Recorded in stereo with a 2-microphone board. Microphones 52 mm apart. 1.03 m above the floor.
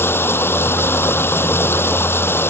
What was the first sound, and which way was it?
Running water, 50° left (ahead or behind).